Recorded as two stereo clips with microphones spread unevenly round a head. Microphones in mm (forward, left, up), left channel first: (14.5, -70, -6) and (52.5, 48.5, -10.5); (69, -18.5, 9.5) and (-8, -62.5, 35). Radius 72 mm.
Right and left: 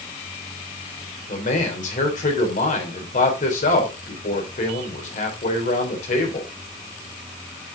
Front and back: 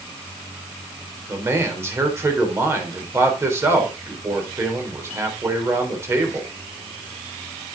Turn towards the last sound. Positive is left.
turn(degrees=-90)